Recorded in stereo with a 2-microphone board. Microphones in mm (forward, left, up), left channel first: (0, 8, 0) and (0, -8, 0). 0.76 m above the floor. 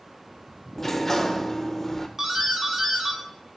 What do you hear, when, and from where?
0.8 s a sliding door: 20° left (ahead or behind), 0.7 m
2.2 s a doorbell: 30° right (ahead or behind), 1.3 m